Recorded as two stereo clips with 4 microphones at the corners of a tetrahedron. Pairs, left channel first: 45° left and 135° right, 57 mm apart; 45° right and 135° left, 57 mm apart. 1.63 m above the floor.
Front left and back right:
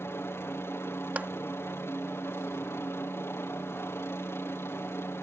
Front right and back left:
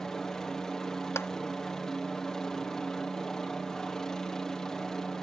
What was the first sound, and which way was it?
A helicopter, 30° left.